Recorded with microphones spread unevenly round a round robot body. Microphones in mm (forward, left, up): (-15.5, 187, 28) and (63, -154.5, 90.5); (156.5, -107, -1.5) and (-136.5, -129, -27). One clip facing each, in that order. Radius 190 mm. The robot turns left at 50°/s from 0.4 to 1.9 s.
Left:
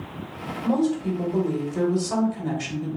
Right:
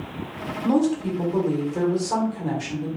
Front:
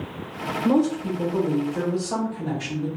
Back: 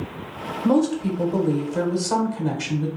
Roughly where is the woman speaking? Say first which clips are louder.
Right 2 dB, back 1 dB; behind right.